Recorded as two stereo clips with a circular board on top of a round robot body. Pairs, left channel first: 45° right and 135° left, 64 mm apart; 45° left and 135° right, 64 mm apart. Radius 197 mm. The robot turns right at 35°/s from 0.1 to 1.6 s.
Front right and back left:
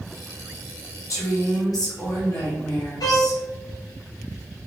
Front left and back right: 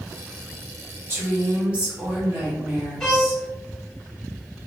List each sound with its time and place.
1.1 s a woman speaking: 85° right, 1.3 m; by 3.4 s 65° right, 1.3 m
3.0 s a violin: 40° right, 1.3 m